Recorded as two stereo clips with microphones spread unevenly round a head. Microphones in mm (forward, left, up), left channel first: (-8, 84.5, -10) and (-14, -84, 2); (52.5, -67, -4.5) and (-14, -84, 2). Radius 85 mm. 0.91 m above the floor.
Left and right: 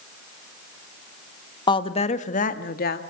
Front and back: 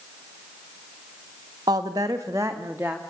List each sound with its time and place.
1.7 s a woman speaking: 145° left, 1.4 m; by 3.0 s 115° left, 2 m